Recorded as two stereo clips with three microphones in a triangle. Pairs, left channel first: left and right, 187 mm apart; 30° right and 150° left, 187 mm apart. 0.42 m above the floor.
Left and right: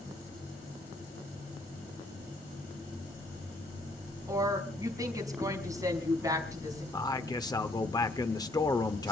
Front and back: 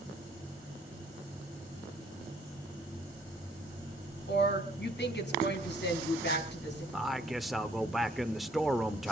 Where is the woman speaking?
20° right, 4 m.